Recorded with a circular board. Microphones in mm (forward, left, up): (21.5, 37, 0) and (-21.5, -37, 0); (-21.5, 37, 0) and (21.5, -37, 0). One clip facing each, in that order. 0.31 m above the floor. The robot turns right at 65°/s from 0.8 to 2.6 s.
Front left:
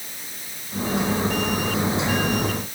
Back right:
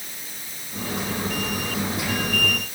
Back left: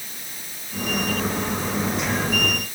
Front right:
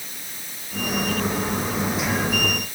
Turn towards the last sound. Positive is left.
No sound to turn to.